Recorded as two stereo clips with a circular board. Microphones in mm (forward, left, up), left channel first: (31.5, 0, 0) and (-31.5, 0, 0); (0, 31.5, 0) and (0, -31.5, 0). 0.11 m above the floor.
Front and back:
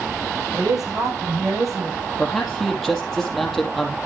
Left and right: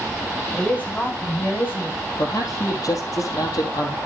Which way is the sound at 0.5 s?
155° left.